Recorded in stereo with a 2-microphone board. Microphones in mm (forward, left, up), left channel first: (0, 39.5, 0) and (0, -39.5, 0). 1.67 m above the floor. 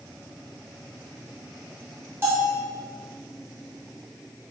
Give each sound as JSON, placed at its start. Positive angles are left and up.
{"t": 2.2, "sound": "a bell", "side_deg": -35, "distance_m": 1.0}